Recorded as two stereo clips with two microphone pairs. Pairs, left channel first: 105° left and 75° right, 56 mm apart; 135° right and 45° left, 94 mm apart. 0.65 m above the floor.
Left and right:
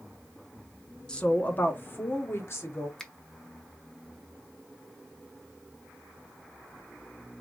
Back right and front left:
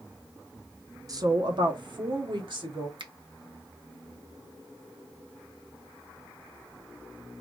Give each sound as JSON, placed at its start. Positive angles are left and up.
{"t": 1.1, "sound": "a woman speaking", "azimuth_deg": 45, "distance_m": 0.6}
{"t": 3.0, "sound": "a finger snap", "azimuth_deg": 30, "distance_m": 0.6}